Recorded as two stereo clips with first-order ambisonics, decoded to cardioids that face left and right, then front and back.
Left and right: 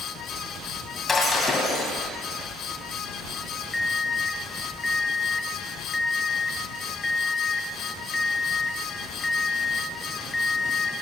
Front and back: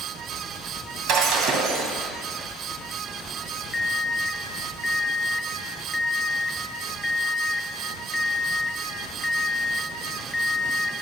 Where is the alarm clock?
30° left, 0.7 m.